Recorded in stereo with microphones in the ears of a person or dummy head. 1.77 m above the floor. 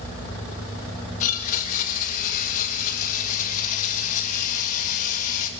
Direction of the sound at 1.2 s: 50° left (ahead or behind).